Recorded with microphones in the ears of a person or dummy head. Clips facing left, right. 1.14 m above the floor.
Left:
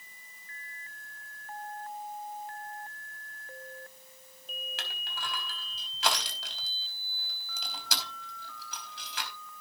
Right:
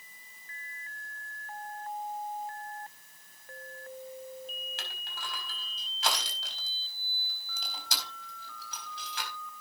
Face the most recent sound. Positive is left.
turn(degrees=75)  # may be behind; listen again after turning